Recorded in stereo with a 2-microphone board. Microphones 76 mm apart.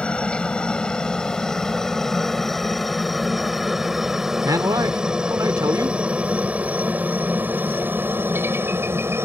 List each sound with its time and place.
0.0 s a helicopter: 15° left (ahead or behind); by 9.3 s 35° right (ahead or behind)
4.4 s a man speaking: 60° right (ahead or behind)